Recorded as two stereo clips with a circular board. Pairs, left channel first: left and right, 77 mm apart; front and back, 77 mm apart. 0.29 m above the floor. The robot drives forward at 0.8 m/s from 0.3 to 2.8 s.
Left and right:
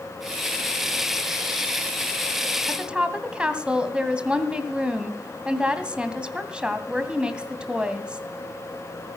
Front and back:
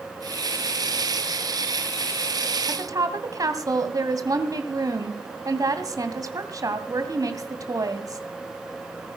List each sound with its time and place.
2.7 s a woman speaking: 160° right, 2 m; by 8.2 s 165° right, 2 m